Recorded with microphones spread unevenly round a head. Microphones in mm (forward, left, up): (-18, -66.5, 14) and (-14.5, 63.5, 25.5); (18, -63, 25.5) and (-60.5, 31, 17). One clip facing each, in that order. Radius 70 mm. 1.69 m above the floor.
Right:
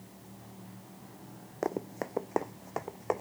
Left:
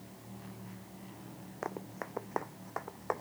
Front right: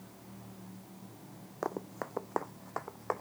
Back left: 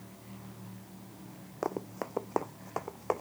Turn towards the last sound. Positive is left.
turn(degrees=-160)